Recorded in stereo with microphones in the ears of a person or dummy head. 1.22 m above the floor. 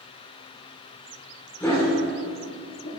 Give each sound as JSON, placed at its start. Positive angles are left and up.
{"t": 1.6, "sound": "a dog barking", "side_deg": 10, "distance_m": 1.7}